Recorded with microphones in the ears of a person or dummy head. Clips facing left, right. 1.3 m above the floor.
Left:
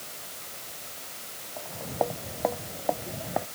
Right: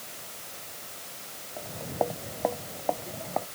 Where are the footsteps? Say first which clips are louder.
Even; 10° right (ahead or behind); by 3.5 s 10° left (ahead or behind).